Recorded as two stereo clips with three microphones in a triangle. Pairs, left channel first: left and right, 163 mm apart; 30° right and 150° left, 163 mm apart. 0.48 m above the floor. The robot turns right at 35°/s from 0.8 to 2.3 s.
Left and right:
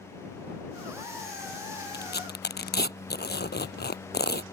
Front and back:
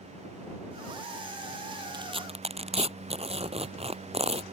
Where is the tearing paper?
85° left; by 4.4 s 100° left.